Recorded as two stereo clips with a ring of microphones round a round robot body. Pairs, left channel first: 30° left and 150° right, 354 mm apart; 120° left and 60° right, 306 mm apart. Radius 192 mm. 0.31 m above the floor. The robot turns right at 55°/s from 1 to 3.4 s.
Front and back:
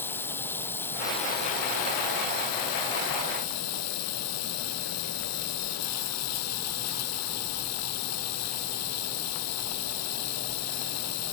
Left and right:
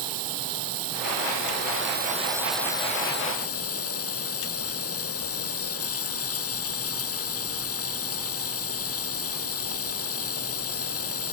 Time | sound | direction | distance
0.0 | running water | 55° right | ?